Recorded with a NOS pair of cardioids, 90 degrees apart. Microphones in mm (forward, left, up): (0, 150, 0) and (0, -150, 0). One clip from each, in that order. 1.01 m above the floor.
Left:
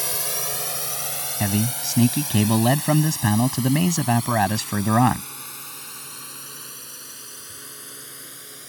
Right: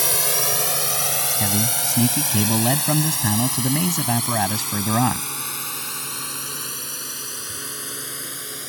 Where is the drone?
50° right; by 8.7 s 65° right.